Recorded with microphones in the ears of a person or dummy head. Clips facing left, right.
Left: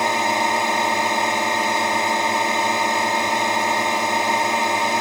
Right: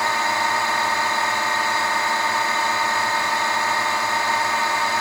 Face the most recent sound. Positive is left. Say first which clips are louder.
# left 3 dB
turn(degrees=15)  # may be behind; listen again after turning